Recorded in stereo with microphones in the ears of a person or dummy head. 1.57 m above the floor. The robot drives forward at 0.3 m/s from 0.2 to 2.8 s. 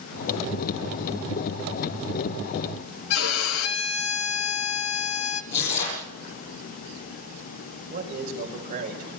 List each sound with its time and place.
3.1 s a violin: 80° left, 1.5 m
5.5 s tearing paper: 65° left (ahead or behind), 9 m
7.9 s a man speaking: 40° right (ahead or behind), 5.5 m